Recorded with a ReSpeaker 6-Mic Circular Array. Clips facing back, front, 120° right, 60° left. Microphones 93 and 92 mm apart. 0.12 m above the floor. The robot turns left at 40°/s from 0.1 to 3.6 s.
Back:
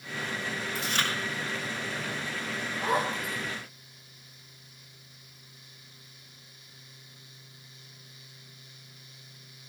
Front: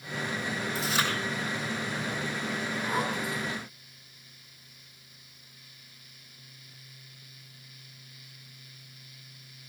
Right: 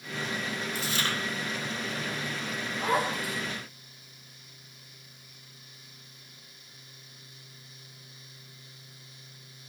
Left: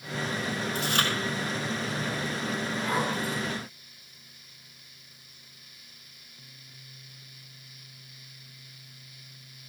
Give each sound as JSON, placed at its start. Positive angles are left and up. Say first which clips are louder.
{"t": 0.8, "sound": "chewing", "louder": "front 2 dB, left 5 dB", "azimuth_deg": 90, "distance_m": 4.0}
{"t": 2.8, "sound": "a zipper", "louder": "back 4 dB, right 3 dB", "azimuth_deg": -175, "distance_m": 9.5}